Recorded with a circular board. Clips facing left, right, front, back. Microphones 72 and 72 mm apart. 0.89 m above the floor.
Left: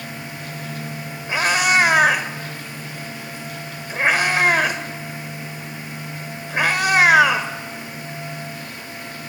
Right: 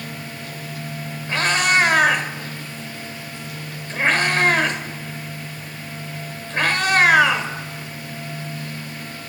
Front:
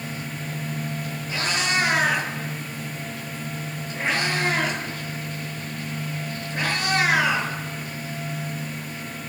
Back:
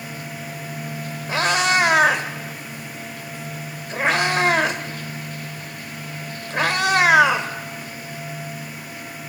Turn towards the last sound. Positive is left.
turn(degrees=165)